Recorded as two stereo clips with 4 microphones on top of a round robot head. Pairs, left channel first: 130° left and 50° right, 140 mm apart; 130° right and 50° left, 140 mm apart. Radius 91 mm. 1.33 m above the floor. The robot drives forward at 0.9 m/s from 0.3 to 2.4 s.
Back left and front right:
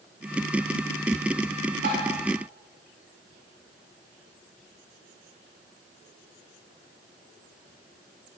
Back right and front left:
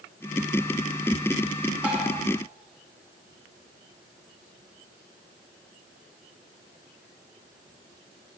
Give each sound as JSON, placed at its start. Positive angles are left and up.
{"t": 1.8, "sound": "tapping", "azimuth_deg": -30, "distance_m": 9.0}